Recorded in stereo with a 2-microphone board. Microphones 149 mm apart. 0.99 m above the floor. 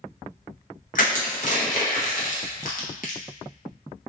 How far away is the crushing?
About 0.7 m.